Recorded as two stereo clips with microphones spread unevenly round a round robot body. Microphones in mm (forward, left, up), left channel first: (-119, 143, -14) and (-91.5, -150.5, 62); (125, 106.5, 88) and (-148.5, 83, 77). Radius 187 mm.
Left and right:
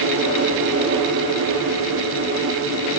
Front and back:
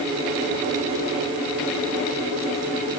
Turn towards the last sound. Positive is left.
No sound to turn to.